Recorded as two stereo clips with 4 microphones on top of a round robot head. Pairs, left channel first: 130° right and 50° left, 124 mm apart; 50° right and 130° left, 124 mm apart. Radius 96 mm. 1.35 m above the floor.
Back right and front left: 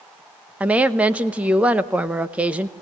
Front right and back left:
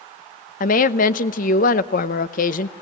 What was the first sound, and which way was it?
A woman speaking, 30° right.